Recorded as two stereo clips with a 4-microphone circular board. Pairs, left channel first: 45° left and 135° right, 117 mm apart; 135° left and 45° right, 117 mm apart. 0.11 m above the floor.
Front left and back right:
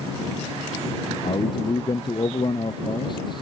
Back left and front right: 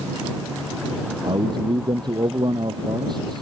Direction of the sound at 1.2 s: Straight ahead.